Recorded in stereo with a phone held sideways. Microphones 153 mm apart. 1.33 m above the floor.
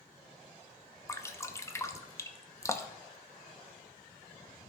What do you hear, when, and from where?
1.1 s dripping: 20° left (ahead or behind), 0.7 m